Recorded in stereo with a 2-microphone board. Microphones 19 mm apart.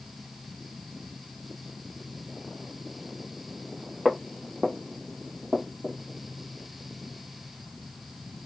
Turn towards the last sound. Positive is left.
turn(degrees=-65)  # may be behind; listen again after turning